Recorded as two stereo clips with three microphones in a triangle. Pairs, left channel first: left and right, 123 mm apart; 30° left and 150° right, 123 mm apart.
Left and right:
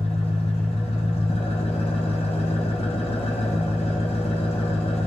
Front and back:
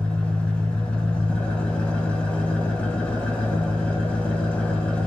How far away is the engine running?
About 1.1 m.